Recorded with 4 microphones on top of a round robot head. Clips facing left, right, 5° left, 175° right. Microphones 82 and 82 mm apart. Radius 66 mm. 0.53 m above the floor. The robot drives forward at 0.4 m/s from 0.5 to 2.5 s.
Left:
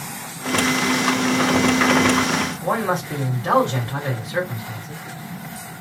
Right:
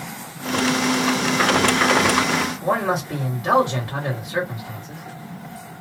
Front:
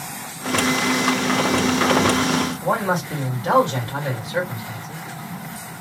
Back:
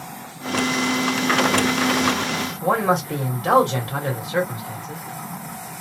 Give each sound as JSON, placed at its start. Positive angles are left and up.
{"t": 2.6, "sound": "a man speaking", "azimuth_deg": -175, "distance_m": 1.8}